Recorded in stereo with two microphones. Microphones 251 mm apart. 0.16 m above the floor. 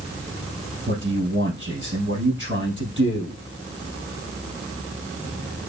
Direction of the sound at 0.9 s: 50° right (ahead or behind).